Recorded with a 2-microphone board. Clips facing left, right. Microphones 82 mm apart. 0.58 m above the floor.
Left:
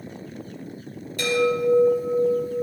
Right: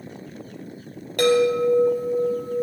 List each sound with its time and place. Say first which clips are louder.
1.2 s a chime: right 4 dB; 60° right (ahead or behind), 4 m